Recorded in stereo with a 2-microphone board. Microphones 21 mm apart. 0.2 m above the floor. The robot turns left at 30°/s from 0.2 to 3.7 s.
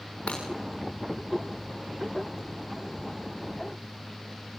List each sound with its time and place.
0.3 s breaking glass: 75° left (ahead or behind), 7 m; by 0.4 s 70° left (ahead or behind), 7 m